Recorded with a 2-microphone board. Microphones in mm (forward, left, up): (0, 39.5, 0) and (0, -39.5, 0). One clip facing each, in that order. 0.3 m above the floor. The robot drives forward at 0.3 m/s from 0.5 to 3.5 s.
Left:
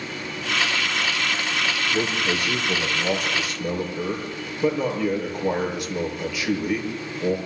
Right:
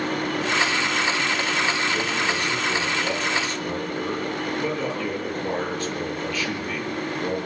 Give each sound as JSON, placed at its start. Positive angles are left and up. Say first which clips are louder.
{"t": 1.9, "sound": "a man speaking", "louder": "even", "side_deg": 15, "distance_m": 7.5}